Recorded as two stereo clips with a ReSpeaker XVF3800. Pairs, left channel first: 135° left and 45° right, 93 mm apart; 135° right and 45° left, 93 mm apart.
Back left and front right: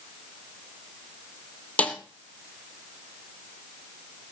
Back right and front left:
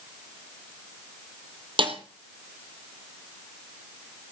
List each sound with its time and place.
1.8 s a snare drum: 60° left, 2 m